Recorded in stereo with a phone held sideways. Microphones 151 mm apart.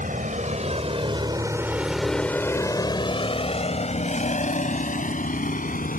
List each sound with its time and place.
0.0 s a vehicle: 60° right (ahead or behind); by 6.0 s 60° left (ahead or behind)